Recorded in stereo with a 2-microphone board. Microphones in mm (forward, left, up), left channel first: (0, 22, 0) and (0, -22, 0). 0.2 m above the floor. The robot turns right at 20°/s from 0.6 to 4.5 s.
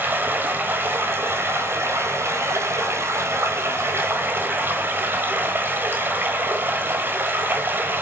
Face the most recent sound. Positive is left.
turn(degrees=-50)